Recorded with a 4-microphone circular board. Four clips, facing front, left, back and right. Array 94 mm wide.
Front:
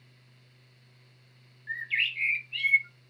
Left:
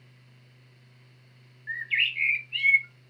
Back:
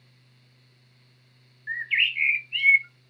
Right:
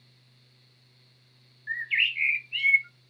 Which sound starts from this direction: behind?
A bird, at 1.7 s.